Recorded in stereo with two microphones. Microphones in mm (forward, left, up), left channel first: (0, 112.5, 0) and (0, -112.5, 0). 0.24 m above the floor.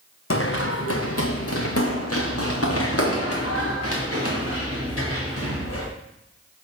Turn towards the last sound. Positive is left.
turn(degrees=65)  # may be behind; listen again after turning